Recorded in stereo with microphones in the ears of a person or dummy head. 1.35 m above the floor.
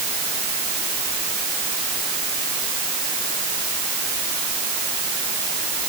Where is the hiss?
I don't hear a hiss.